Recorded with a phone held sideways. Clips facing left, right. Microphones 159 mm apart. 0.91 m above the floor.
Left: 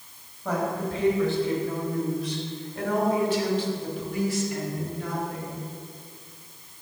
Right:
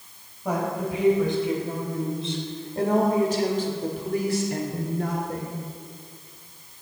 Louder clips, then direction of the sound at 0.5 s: Right 1 dB; 10° right (ahead or behind).